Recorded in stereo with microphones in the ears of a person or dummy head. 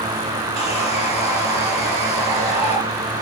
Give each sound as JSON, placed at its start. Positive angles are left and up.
{"t": 0.6, "sound": "sawing", "side_deg": -70, "distance_m": 4.0}